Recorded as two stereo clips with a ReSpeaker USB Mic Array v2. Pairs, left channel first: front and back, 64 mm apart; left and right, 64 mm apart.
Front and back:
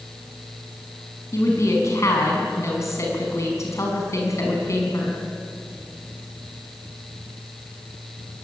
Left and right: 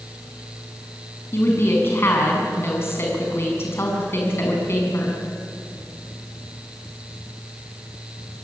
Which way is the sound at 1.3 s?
40° left.